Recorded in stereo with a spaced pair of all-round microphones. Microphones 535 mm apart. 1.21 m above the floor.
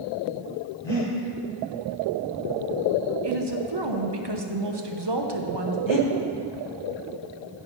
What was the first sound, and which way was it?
Breathing, 60° right (ahead or behind).